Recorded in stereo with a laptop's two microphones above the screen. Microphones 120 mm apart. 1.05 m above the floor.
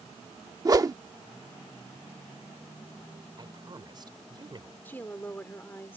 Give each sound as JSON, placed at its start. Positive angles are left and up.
{"t": 0.7, "sound": "a whoosh", "side_deg": -30}
{"t": 3.4, "sound": "a woman speaking", "side_deg": -40}
{"t": 4.8, "sound": "a woman speaking", "side_deg": 15}